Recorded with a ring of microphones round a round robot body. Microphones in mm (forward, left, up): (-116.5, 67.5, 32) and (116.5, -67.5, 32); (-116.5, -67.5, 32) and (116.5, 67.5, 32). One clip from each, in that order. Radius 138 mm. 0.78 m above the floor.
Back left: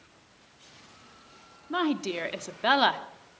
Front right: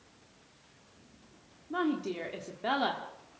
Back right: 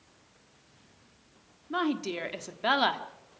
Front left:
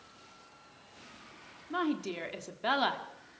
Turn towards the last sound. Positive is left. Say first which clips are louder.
# back left 4 dB, back right 3 dB
turn(degrees=130)